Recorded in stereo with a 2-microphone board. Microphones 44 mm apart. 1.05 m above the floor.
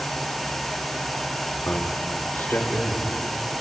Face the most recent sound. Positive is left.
turn(degrees=45)  # may be behind; listen again after turning